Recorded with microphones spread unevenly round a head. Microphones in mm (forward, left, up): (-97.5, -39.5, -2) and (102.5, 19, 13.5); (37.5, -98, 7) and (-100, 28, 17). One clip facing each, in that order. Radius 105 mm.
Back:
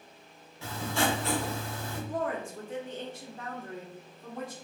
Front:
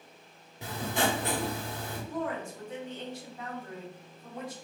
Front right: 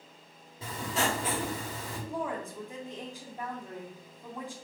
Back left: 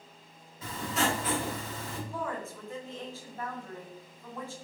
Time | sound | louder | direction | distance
0.6 | writing | even, back left 1 dB | 20° right | 1.0 m
2.1 | a woman speaking | back 1 dB, front right 3 dB | 120° right | 0.9 m